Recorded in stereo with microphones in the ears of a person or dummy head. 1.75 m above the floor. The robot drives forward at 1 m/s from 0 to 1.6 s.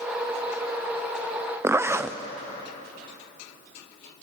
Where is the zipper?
10° right (ahead or behind), 0.7 m.